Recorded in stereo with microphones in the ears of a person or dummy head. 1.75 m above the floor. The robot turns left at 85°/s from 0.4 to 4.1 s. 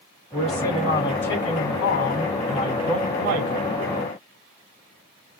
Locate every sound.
0.3 s a man speaking: 170° right, 3.5 m; by 3.7 s 90° right, 3.5 m